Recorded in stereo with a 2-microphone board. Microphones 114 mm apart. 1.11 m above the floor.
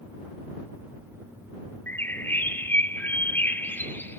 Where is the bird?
20° left (ahead or behind).